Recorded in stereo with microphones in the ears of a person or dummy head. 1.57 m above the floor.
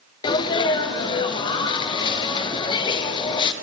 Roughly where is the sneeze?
Left.